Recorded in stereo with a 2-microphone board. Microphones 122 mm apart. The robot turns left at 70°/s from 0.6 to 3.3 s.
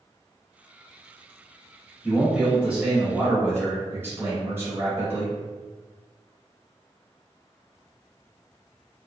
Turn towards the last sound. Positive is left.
turn(degrees=-20)  # may be behind; listen again after turning